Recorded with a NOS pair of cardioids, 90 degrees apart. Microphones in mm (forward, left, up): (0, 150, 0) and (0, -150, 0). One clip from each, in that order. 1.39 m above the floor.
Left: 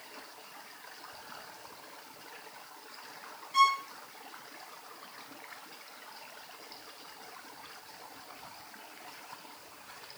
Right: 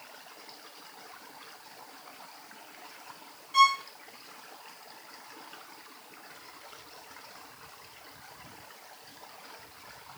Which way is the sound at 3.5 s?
10° right.